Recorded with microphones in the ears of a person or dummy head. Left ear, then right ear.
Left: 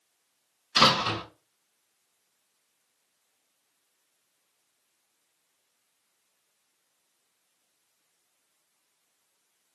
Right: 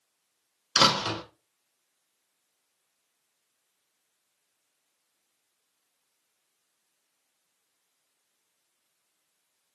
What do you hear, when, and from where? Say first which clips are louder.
0.8 s a door slam: left 1 dB; 60° right (ahead or behind), 1.3 m